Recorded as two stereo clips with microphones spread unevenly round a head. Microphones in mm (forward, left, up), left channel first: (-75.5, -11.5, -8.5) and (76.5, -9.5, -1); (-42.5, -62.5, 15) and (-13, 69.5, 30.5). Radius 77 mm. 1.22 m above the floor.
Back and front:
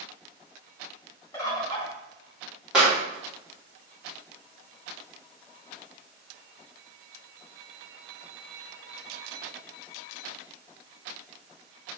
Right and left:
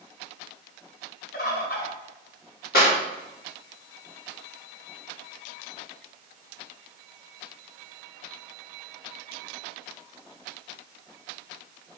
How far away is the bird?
About 2.5 m.